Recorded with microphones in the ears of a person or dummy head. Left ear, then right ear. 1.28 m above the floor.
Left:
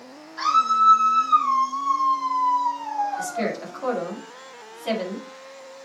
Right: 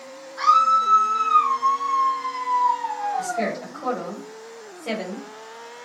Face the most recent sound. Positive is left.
turn(degrees=55)  # may be behind; listen again after turning